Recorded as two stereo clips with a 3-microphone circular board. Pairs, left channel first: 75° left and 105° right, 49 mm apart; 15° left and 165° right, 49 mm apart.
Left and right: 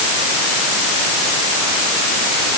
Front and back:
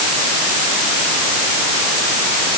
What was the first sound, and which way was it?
Only background noise.